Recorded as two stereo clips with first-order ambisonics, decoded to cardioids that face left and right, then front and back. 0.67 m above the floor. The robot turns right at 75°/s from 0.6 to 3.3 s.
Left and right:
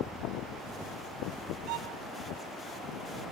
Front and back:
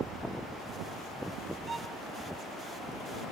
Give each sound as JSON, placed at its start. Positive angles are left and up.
{"t": 1.7, "sound": "a violin", "azimuth_deg": -110}